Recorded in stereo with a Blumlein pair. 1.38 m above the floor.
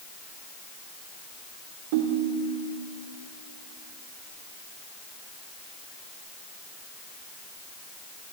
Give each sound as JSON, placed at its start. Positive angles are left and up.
{"t": 1.9, "sound": "a ringtone", "azimuth_deg": -50, "distance_m": 2.5}